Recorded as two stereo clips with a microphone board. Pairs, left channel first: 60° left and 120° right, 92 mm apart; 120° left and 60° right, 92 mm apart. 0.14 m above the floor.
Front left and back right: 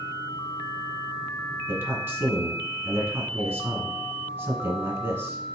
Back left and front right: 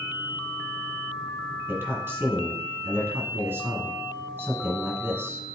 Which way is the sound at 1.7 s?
90° right.